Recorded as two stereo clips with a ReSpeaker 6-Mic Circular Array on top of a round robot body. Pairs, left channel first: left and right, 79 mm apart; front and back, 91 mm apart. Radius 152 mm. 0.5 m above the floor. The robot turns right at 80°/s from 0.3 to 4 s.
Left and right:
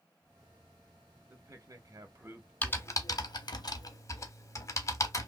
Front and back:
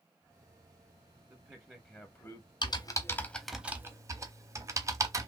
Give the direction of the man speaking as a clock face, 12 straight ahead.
4 o'clock.